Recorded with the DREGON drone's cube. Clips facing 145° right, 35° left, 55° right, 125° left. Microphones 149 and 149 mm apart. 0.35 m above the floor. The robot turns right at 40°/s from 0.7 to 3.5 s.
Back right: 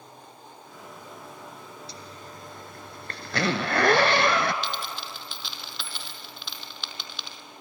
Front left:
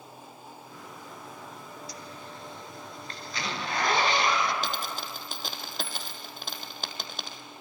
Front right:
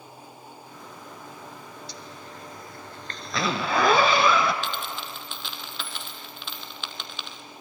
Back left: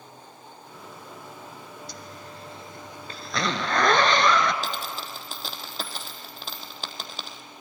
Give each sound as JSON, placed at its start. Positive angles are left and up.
{"t": 1.9, "sound": "a zipper", "azimuth_deg": 155, "distance_m": 1.1}
{"t": 4.6, "sound": "a dropped coin", "azimuth_deg": 75, "distance_m": 1.5}